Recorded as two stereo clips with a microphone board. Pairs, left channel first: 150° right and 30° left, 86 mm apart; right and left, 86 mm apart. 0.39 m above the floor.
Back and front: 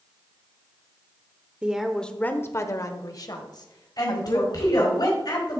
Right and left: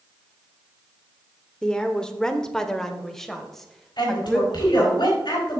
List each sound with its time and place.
1.6 s a woman speaking: 20° right, 0.8 m; by 5.0 s 175° right, 2.5 m
4.0 s a woman speaking: 115° right, 4.5 m